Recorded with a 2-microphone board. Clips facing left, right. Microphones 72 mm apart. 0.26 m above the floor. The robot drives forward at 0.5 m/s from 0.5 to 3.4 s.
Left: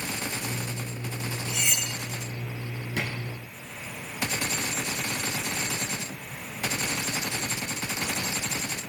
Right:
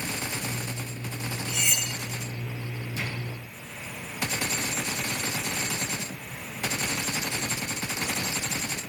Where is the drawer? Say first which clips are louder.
Left 3 dB; 75° left (ahead or behind), 2.5 m.